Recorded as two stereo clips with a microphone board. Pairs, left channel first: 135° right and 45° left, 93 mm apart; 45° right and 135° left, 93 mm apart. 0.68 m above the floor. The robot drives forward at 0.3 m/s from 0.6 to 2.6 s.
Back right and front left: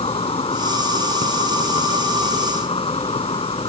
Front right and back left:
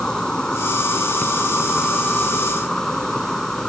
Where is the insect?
130° right.